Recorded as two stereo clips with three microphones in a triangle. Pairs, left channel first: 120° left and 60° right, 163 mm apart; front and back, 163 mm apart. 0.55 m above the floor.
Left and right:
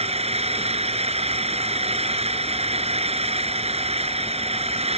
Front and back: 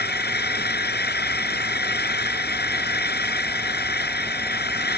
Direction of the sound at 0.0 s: 10° right.